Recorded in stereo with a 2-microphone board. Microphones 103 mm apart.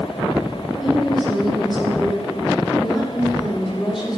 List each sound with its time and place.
0.8 s a woman speaking: centre (ahead or behind), 7 m